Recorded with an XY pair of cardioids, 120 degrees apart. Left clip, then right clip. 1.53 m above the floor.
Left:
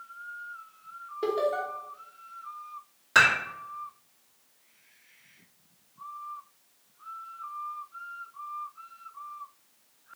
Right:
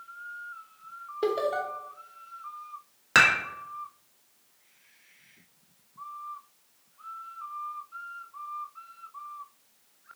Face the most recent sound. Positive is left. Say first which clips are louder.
# even
turn(degrees=-50)